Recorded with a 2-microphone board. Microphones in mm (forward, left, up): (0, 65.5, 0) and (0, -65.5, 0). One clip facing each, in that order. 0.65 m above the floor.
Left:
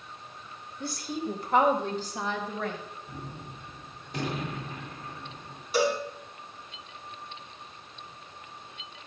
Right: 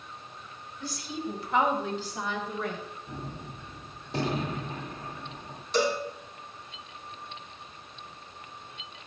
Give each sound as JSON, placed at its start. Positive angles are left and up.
{"t": 0.8, "sound": "a woman speaking", "side_deg": 55, "distance_m": 2.5}
{"t": 3.1, "sound": "a gunshot", "side_deg": -30, "distance_m": 1.9}
{"t": 5.7, "sound": "a cowbell", "side_deg": 10, "distance_m": 2.5}